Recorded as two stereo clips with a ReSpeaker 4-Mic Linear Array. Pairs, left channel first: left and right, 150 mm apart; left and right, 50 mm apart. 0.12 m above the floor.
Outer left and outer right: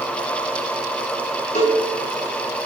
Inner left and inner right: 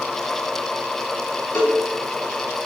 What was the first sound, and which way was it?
A cowbell, 50° left (ahead or behind).